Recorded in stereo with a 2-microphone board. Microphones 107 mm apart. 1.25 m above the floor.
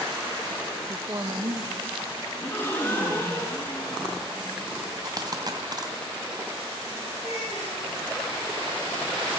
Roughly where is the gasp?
Left.